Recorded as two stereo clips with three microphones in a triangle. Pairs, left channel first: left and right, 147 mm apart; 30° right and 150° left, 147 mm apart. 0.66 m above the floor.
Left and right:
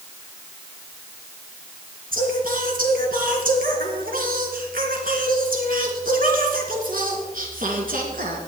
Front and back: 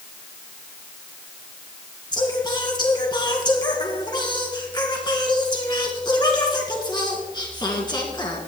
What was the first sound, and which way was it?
Singing, 90° right.